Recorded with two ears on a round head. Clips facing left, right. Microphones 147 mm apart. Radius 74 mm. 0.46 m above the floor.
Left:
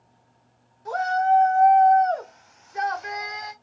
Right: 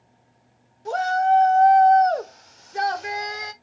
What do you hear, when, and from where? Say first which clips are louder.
0.8 s a shout: right 1 dB; 30° right (ahead or behind), 1.1 m; by 3.5 s 35° right (ahead or behind), 1.5 m